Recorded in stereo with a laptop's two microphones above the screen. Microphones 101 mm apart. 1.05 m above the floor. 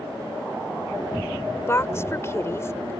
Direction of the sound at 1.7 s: 25° left (ahead or behind).